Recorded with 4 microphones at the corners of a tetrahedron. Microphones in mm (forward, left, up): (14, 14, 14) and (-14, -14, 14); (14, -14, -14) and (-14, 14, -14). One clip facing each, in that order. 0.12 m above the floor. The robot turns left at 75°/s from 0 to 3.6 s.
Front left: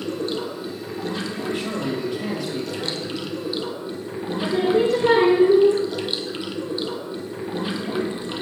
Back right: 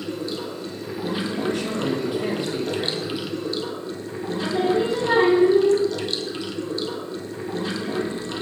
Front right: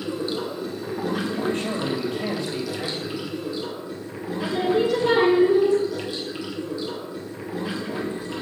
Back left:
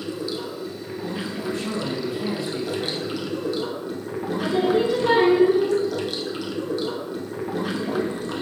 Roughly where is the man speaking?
Ahead.